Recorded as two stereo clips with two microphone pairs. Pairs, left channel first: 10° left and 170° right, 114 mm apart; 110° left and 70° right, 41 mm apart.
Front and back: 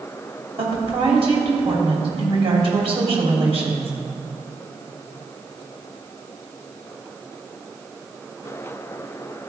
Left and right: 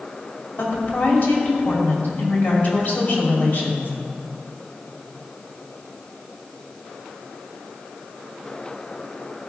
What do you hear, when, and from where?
0.6 s a woman speaking: 160° left, 3 m